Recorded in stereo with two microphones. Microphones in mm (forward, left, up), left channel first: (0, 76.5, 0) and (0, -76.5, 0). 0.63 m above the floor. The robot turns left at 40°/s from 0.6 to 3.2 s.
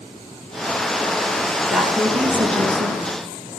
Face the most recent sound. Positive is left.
turn(degrees=-60)